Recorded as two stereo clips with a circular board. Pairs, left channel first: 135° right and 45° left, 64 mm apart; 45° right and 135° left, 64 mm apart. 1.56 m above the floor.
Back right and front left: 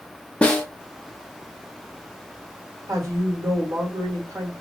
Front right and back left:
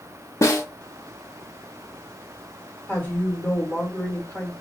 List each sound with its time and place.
0.4 s a snare drum: 65° right, 0.8 m
2.9 s a woman speaking: 20° left, 1.3 m